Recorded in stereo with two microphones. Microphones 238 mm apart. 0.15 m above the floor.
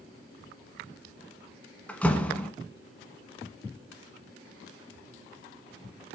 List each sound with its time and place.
1.9 s a door slam: 5° left (ahead or behind), 1.2 m